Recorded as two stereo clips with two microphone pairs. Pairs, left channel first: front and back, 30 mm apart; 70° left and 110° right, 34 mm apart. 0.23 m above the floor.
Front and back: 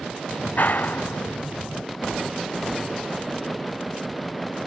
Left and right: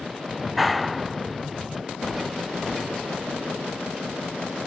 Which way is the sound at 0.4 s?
20° right.